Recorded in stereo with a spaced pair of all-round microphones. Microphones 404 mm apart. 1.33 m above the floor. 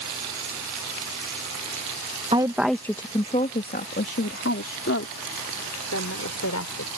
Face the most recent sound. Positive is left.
turn(degrees=40)  # may be behind; listen again after turning